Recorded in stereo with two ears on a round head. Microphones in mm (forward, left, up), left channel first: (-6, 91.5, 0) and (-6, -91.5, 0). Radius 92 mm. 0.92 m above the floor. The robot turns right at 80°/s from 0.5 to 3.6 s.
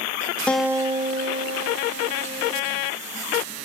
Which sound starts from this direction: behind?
A guitar, at 0.5 s.